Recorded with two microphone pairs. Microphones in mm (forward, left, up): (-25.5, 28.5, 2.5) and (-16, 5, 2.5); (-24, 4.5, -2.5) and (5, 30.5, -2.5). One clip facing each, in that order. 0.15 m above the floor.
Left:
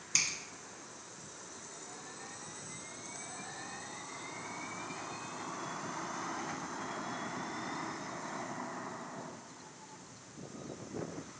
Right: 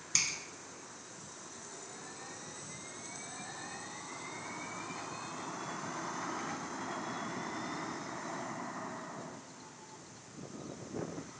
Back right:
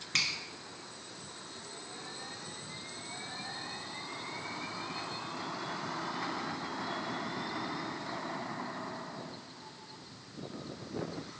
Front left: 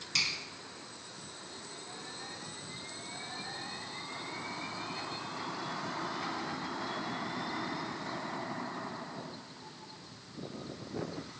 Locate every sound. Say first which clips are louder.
0.1 s a finger snap: left 1 dB, back right 1 dB; 155° right, 1.7 m